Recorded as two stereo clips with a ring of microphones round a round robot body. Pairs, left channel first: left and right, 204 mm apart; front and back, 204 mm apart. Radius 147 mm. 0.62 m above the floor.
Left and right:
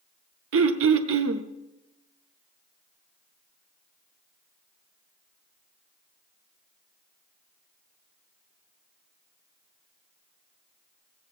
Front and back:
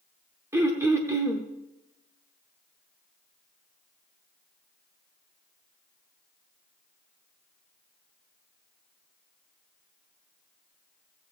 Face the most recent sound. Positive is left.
turn(degrees=-100)